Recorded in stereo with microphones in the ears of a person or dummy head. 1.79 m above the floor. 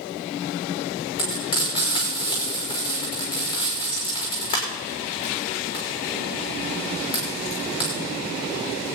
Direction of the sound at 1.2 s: 35° left (ahead or behind).